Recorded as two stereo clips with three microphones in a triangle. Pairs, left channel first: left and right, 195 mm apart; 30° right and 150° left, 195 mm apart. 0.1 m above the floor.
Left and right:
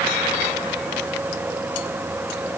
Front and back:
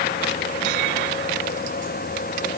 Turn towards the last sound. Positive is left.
No sound to turn to.